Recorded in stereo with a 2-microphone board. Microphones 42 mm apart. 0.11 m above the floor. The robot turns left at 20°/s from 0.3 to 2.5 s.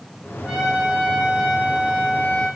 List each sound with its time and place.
0.4 s a trumpet: 160° right, 5 m; by 2.5 s 160° left, 5 m